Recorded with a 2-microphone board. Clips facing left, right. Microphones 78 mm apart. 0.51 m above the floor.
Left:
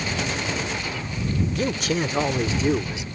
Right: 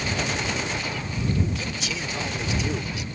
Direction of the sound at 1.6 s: 55° left (ahead or behind).